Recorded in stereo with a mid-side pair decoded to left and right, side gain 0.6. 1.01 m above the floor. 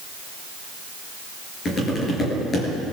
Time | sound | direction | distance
1.6 | tapping | 35° left | 6 m